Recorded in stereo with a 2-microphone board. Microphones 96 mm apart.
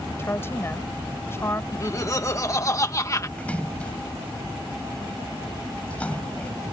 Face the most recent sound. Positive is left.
turn(degrees=15)  # may be behind; listen again after turning